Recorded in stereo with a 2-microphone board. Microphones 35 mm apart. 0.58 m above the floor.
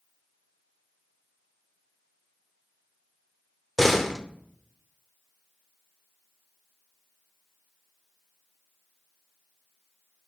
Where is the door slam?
5° left (ahead or behind), 0.9 m.